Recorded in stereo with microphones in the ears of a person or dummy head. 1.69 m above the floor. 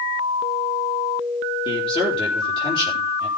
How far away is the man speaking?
About 4 m.